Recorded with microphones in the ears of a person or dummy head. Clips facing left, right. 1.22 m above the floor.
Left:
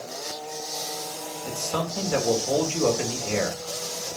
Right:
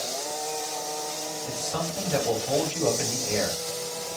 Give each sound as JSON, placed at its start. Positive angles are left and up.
{"t": 1.4, "sound": "a man speaking", "side_deg": 60, "distance_m": 1.7}